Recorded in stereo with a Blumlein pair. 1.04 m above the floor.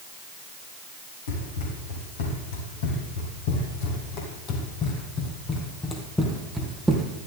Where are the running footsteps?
60° left, 4 m; by 7.1 s 10° right, 1.9 m.